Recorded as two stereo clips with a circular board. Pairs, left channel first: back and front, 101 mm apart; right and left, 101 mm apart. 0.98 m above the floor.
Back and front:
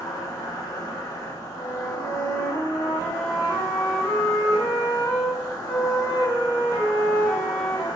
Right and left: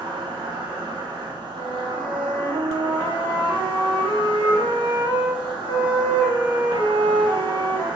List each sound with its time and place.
0.0 s an insect: 125° left, 0.8 m
1.5 s a flute: 135° right, 1.1 m